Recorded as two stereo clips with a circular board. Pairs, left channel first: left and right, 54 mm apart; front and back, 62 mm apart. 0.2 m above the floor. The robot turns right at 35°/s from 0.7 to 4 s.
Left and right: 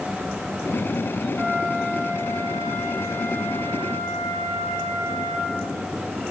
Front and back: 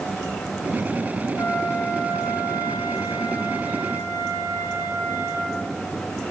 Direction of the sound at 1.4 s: 45° right.